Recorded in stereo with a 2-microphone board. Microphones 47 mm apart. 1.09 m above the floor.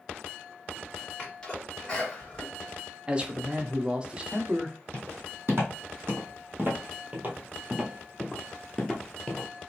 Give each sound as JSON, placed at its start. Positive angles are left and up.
{"t": 1.2, "sound": "a sneeze", "side_deg": 20, "distance_m": 1.8}
{"t": 3.1, "sound": "a man speaking", "side_deg": -25, "distance_m": 0.5}
{"t": 4.9, "sound": "footsteps", "side_deg": -55, "distance_m": 2.0}